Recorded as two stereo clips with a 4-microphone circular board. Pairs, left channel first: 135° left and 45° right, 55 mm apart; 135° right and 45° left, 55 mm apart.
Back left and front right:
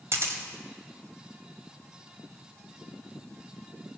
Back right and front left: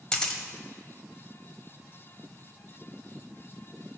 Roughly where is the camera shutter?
Ahead right.